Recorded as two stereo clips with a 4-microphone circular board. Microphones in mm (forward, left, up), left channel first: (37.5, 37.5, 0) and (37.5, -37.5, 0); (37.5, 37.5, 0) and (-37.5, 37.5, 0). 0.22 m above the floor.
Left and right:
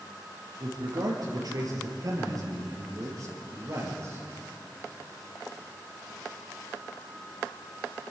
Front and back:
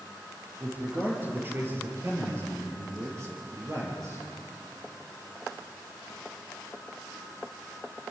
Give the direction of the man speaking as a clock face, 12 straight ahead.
4 o'clock.